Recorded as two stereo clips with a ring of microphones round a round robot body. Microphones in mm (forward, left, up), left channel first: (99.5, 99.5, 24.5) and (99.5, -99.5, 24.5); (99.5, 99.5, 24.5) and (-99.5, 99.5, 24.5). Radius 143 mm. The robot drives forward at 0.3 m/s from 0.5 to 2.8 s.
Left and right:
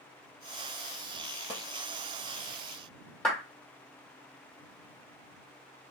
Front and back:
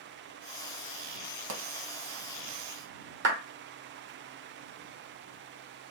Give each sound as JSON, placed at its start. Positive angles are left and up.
{"t": 1.5, "sound": "a pop", "azimuth_deg": -165, "distance_m": 0.7}
{"t": 3.2, "sound": "a clap", "azimuth_deg": 175, "distance_m": 1.0}